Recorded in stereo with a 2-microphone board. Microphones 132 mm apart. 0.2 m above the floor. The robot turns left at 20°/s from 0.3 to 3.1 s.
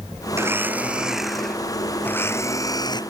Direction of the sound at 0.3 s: 160° right.